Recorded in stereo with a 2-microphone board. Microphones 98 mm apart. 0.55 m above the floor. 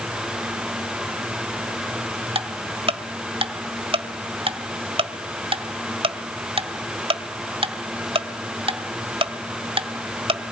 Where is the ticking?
70° right (ahead or behind), 1.5 m.